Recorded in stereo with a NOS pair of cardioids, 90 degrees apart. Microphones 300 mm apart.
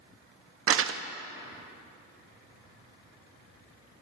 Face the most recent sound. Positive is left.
turn(degrees=-45)